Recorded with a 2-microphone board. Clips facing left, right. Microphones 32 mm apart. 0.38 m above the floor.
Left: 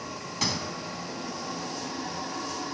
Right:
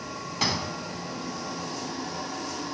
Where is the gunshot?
15° right (ahead or behind), 1.1 m.